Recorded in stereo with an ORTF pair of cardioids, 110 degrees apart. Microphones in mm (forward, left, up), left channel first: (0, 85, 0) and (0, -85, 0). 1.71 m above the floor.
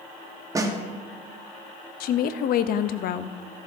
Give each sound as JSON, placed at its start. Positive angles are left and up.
{"t": 0.6, "sound": "a snare drum", "azimuth_deg": -20, "distance_m": 1.2}
{"t": 2.0, "sound": "a woman speaking", "azimuth_deg": 60, "distance_m": 0.7}